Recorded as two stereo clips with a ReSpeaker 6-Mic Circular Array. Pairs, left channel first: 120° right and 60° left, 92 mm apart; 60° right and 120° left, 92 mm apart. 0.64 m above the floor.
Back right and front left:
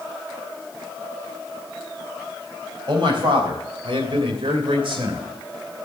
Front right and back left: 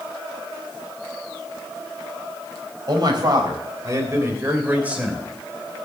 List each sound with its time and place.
2.9 s a man speaking: 90° left, 3.5 m; by 5.2 s 40° left, 3 m